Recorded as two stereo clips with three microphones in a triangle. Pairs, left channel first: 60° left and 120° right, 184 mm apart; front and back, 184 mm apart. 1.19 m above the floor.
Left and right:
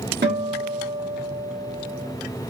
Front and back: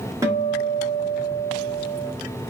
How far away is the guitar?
About 1.2 m.